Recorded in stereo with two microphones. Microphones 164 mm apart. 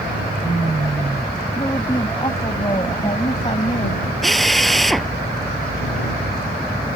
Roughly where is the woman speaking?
Left.